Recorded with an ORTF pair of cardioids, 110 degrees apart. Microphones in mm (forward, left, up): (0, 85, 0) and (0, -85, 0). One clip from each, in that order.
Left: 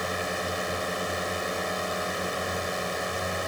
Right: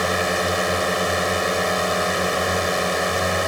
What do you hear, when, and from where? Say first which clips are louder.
0.0 s a drone: right 9 dB; 50° right